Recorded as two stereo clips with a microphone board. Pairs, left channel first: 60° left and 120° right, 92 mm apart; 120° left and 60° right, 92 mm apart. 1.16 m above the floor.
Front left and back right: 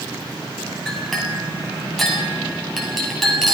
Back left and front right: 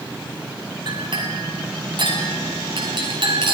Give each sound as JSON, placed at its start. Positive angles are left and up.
{"t": 0.9, "sound": "a clink", "azimuth_deg": -30, "distance_m": 6.0}